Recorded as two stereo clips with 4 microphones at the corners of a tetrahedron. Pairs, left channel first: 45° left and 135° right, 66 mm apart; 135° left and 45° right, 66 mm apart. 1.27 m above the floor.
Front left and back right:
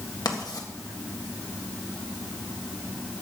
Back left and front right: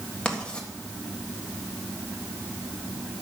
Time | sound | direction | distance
0.2 | writing | 60° left | 1.6 m